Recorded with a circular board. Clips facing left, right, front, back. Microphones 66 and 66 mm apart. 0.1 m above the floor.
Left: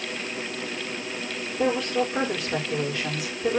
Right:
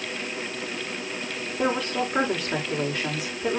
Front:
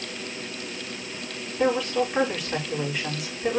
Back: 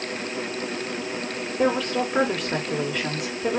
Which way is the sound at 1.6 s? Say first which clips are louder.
Left 2 dB, even; 145° right.